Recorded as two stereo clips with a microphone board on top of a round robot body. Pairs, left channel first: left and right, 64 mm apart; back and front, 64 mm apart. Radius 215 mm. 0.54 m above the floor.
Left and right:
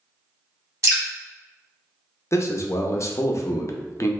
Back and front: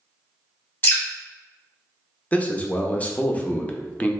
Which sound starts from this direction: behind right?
Dripping, at 0.8 s.